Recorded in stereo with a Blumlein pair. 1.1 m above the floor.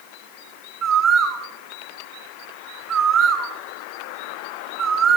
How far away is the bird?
About 3 m.